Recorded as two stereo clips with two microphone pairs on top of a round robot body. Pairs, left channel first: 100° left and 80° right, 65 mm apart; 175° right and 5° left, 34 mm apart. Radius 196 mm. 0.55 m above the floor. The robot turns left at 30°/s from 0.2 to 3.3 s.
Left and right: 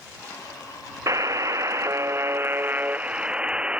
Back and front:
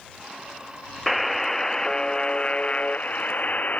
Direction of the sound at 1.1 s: 80° right.